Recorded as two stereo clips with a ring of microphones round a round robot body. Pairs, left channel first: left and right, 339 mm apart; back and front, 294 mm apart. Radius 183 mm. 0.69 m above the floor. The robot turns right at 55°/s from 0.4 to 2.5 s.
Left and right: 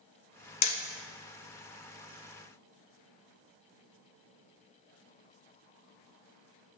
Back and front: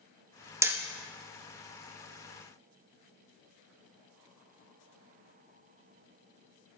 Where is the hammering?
80° left, 1.1 m; by 0.8 s 90° left, 1.1 m.